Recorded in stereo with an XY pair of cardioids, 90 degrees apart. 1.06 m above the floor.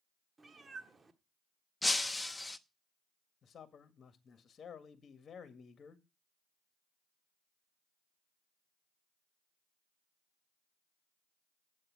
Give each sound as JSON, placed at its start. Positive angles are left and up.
{"t": 0.4, "sound": "a cat meowing", "azimuth_deg": -30, "distance_m": 1.4}
{"t": 1.8, "sound": "breaking glass", "azimuth_deg": 15, "distance_m": 0.8}
{"t": 3.4, "sound": "a man speaking", "azimuth_deg": 55, "distance_m": 1.8}